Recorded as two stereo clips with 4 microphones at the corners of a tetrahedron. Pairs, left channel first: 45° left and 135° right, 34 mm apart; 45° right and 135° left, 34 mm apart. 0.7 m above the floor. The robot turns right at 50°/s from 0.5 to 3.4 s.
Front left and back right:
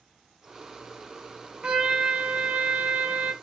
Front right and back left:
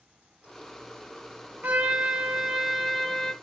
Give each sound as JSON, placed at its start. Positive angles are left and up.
{"t": 1.6, "sound": "a trumpet", "azimuth_deg": 165, "distance_m": 0.5}